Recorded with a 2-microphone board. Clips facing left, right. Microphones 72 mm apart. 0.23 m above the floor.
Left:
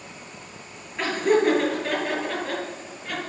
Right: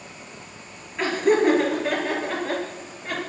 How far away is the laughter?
About 4.5 m.